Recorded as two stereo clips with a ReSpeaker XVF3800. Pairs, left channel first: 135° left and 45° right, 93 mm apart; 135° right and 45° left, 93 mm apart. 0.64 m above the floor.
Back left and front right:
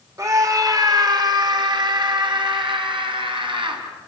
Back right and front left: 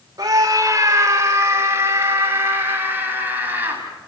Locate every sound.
0.2 s a scream: 5° left, 2 m; by 3.8 s 25° right, 5 m